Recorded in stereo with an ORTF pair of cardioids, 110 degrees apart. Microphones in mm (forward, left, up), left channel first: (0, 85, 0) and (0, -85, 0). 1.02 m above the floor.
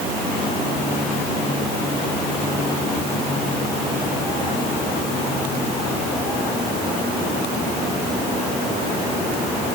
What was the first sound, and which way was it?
Only background noise.